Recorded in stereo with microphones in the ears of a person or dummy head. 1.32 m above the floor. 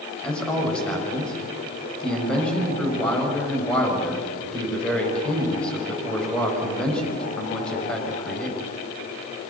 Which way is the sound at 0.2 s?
10° left (ahead or behind).